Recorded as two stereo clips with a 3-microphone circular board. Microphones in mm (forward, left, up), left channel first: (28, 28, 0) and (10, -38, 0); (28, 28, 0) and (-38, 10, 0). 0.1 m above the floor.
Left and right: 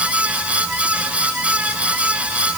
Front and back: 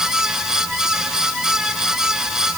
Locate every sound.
Only background noise.